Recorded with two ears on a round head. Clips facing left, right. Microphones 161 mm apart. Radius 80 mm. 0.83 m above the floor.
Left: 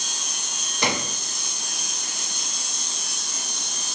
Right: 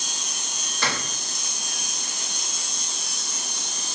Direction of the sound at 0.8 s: 15° left (ahead or behind).